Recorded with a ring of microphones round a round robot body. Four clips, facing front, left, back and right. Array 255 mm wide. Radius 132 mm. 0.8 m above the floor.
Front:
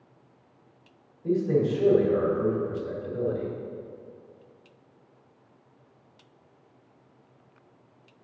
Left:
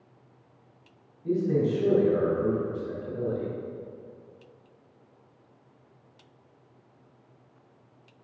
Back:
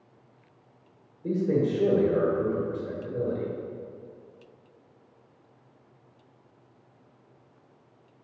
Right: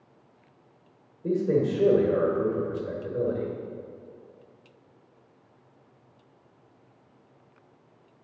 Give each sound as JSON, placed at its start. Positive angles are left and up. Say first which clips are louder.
{"t": 1.2, "sound": "a man speaking", "louder": "right 1 dB, front 1 dB", "azimuth_deg": -120, "distance_m": 2.0}